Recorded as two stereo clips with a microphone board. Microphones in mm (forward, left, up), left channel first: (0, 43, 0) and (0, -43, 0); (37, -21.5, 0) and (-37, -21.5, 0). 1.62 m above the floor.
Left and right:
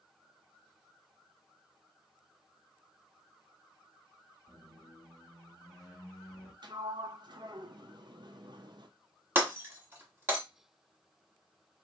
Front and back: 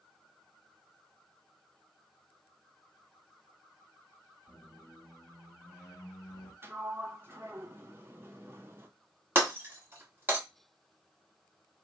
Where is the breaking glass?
140° right, 1.3 m.